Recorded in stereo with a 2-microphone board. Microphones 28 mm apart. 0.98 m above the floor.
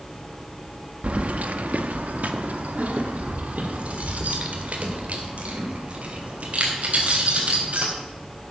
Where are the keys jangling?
55° right (ahead or behind), 0.7 m.